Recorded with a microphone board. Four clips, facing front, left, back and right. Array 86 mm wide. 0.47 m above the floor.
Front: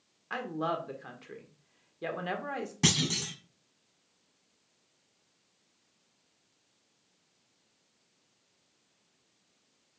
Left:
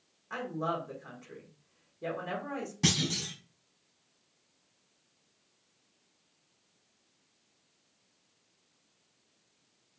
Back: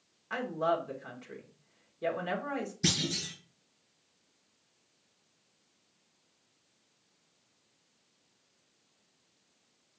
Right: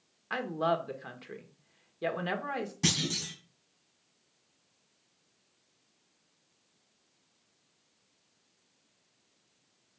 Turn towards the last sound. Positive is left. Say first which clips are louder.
# left 2 dB, front 3 dB
turn(degrees=5)